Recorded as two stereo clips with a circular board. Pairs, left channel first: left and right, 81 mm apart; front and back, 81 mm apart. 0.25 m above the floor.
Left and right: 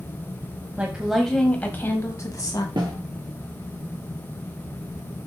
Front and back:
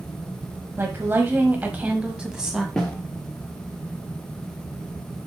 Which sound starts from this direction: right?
A snare drum, at 2.8 s.